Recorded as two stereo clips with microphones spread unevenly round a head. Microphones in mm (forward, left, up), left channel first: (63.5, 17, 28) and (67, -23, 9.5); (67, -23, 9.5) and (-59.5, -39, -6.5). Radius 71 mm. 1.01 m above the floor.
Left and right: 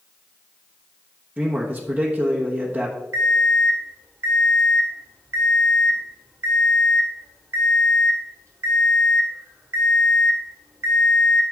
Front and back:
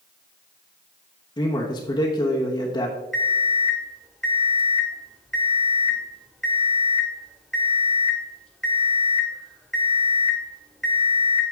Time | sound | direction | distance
1.4 | a man speaking | 55° right | 1.1 m
3.1 | an alarm clock | 80° right | 1.5 m